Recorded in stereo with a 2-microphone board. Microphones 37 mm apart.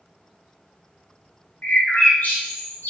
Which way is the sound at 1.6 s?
50° left (ahead or behind).